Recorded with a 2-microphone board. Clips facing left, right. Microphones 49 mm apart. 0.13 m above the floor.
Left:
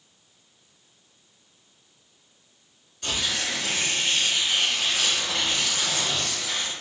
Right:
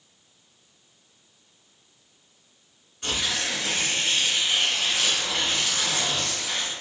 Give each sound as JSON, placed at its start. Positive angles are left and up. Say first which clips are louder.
{"t": 3.0, "sound": "tearing paper", "louder": "even", "side_deg": -20, "distance_m": 1.9}